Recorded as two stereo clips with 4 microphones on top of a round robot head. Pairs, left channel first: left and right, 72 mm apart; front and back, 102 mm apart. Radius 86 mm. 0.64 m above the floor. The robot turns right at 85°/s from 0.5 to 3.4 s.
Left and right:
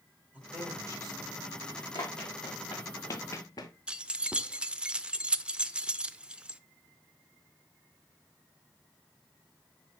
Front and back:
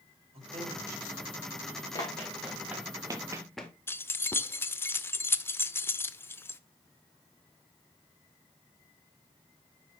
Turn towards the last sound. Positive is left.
turn(degrees=-35)